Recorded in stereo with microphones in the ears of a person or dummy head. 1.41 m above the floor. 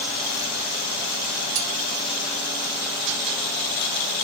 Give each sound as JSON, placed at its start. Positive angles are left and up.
{"t": 1.6, "sound": "cutlery clinking", "side_deg": -40, "distance_m": 1.2}